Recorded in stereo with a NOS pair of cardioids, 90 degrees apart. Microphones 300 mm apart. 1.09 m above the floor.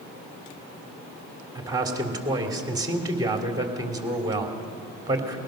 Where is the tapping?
No tapping in this recording.